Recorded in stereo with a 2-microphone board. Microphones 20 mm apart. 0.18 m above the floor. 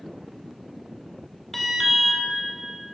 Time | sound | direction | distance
1.5 | an alarm | 15° left (ahead or behind) | 1.2 m